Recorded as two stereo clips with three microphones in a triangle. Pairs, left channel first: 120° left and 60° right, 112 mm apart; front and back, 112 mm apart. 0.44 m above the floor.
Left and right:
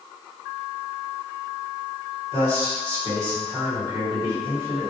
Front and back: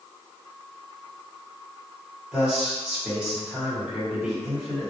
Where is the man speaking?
100° right, 2.0 m.